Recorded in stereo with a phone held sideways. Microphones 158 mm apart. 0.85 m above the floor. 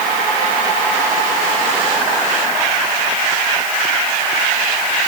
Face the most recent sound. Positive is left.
No sound to turn to.